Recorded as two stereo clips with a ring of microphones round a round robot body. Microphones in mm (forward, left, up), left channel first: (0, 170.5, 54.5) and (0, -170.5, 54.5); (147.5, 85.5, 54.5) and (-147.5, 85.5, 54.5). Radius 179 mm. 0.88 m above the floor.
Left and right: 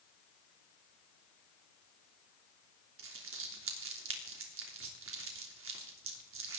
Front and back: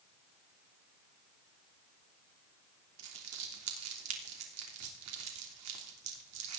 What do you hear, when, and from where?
3.0 s crumpling: 140° right, 3 m